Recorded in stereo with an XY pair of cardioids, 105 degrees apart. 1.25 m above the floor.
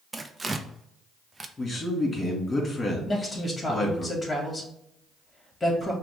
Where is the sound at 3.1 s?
20° left, 2 m.